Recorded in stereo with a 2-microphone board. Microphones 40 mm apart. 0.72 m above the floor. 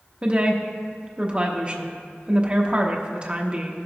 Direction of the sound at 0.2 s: 25° right (ahead or behind).